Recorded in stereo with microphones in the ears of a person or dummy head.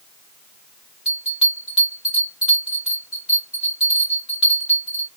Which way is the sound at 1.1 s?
5° right (ahead or behind).